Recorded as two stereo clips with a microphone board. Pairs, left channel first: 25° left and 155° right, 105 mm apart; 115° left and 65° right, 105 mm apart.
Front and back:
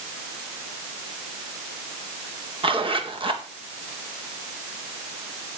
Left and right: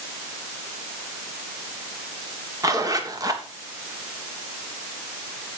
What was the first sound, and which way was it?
A zipper, 125° right.